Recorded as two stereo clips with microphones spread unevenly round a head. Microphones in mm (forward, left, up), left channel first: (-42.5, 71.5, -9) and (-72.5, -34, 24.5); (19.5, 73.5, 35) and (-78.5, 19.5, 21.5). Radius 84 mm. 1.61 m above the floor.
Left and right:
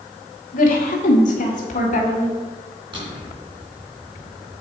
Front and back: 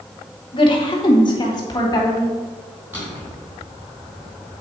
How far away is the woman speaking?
About 1.4 m.